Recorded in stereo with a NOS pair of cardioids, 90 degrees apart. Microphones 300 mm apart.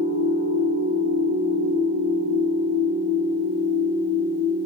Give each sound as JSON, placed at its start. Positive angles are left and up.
{"t": 0.0, "sound": "a machine running", "azimuth_deg": 65, "distance_m": 1.3}